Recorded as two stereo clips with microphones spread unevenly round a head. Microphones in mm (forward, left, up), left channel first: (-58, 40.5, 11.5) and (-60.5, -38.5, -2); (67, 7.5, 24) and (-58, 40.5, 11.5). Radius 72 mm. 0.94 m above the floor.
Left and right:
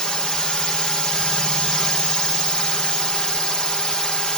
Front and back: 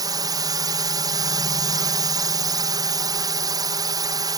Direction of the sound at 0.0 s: 175° left.